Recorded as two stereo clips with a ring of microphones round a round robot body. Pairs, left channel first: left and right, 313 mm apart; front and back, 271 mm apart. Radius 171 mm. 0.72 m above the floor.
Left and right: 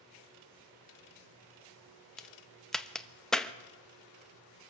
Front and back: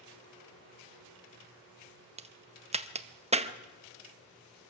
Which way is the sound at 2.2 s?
175° left.